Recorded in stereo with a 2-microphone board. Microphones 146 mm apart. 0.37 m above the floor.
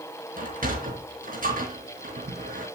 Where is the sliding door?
70° right (ahead or behind), 4 m.